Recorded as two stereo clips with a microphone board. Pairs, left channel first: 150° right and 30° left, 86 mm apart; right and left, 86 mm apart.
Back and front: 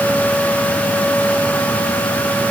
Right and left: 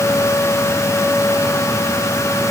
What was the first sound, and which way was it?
Only background noise.